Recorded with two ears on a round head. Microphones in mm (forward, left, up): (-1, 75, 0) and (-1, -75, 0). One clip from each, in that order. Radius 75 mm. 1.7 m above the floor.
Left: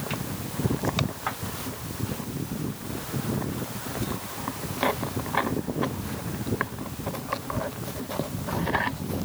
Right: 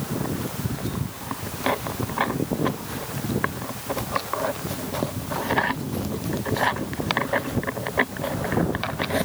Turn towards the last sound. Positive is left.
No sound to turn to.